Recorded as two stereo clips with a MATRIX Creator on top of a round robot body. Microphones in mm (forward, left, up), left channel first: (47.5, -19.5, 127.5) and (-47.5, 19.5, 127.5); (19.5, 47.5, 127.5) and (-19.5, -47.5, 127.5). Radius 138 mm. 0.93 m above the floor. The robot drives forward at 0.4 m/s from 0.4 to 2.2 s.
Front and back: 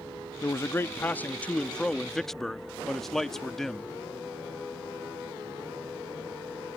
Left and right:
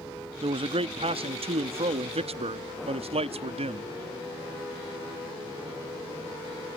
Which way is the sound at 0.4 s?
85° right.